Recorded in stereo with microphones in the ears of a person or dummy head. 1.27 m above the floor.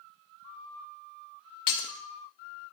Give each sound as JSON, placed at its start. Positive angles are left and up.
{"t": 1.7, "sound": "breaking glass", "side_deg": 25, "distance_m": 0.6}